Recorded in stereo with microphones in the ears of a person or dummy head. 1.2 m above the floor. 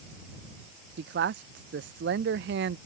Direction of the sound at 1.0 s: 55° right (ahead or behind).